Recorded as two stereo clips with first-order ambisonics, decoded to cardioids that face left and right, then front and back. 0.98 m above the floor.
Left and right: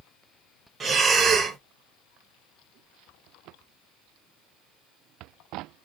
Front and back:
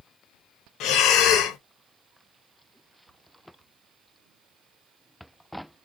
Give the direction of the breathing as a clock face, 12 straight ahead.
1 o'clock.